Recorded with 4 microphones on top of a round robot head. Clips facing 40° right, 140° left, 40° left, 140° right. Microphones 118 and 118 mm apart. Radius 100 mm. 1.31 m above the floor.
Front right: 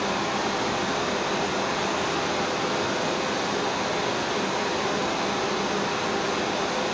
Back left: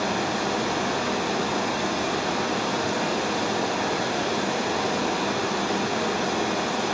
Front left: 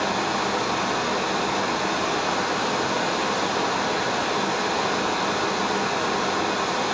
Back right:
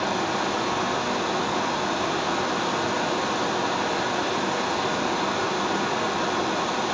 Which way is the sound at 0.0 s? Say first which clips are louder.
Back left 1 dB, front left 1 dB; 135° left.